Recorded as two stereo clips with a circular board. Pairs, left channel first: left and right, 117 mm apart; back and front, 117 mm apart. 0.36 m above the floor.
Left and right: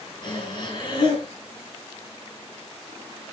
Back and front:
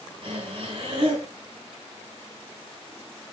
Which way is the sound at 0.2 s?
40° left.